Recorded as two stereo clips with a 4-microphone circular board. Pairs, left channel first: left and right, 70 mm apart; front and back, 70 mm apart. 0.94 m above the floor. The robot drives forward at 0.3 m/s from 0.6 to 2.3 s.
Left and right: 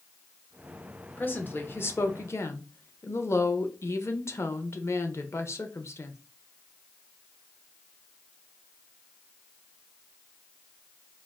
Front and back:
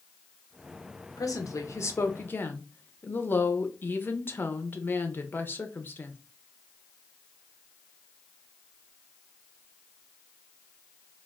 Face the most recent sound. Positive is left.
turn(degrees=55)